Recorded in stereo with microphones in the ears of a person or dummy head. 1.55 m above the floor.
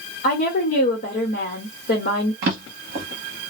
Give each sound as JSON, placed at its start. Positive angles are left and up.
{"t": 0.2, "sound": "a woman speaking", "side_deg": 50, "distance_m": 1.3}
{"t": 2.4, "sound": "a drawer", "side_deg": -45, "distance_m": 0.8}